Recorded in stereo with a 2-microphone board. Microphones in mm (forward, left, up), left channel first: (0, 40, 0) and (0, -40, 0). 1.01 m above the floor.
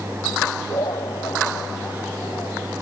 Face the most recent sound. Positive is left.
turn(degrees=55)  # may be behind; listen again after turning